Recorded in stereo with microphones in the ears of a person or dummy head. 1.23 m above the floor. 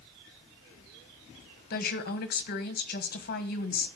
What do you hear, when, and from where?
1.7 s a woman speaking: 45° left (ahead or behind), 1.2 m